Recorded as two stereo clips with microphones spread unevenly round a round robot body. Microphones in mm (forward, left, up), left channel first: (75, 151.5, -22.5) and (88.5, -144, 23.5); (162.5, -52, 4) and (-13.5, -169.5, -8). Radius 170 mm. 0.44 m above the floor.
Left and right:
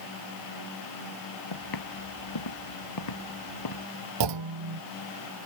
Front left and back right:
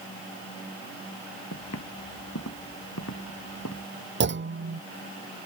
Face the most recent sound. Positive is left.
turn(degrees=-110)